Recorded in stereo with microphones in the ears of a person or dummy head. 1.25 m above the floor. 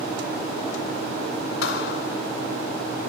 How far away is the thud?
About 2 m.